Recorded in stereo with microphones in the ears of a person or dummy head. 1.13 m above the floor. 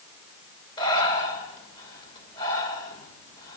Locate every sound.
0.8 s breathing: 25° left (ahead or behind), 2.5 m